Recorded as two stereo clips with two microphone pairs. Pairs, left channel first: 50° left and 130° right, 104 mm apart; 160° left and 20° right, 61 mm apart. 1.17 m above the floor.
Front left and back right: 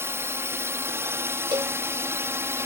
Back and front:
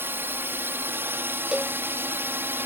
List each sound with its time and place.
0.0 s a drone: 70° right
1.5 s a cowbell: 90° right